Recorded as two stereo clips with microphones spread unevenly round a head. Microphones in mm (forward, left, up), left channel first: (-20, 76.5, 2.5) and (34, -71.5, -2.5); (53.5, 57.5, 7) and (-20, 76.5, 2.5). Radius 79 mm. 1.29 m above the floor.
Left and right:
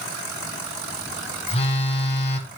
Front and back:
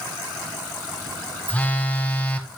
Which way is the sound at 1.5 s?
55° left.